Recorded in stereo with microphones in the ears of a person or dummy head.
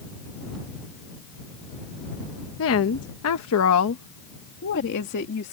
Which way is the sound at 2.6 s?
65° left (ahead or behind).